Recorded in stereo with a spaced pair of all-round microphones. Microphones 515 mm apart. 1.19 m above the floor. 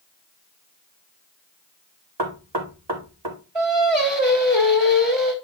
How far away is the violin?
No violin in this recording.